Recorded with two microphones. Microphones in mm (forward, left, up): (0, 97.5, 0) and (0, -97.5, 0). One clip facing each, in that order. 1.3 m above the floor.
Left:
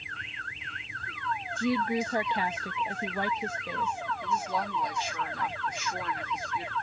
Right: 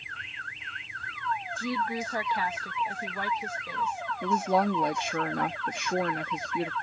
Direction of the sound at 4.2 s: 65° right (ahead or behind).